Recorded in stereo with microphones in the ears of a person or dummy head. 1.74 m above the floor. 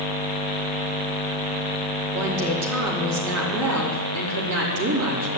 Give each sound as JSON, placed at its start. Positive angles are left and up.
{"t": 2.1, "sound": "a woman speaking", "side_deg": -85, "distance_m": 4.0}